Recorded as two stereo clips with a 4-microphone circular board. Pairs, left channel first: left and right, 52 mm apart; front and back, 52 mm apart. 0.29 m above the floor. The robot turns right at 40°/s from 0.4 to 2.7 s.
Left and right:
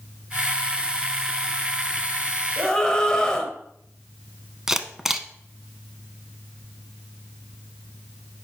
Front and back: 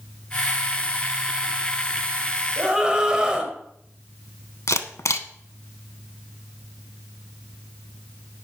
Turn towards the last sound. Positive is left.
turn(degrees=-10)